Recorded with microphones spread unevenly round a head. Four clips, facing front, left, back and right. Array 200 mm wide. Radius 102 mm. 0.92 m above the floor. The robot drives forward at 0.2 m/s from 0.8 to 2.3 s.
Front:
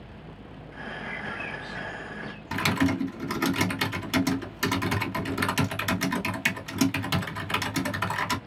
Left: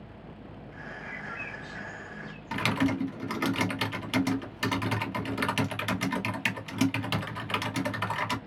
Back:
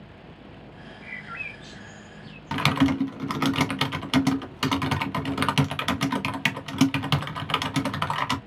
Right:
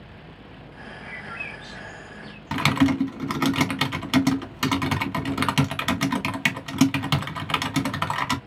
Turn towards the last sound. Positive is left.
turn(degrees=-125)